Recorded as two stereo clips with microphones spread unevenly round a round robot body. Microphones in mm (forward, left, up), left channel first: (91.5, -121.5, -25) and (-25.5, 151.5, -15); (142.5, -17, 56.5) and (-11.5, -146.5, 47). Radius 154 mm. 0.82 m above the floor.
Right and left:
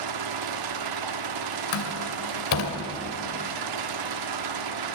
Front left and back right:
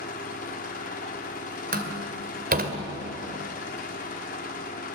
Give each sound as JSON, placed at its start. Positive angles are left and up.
{"t": 0.0, "sound": "an engine running", "azimuth_deg": 105, "distance_m": 0.8}
{"t": 1.7, "sound": "a door slam", "azimuth_deg": -95, "distance_m": 2.5}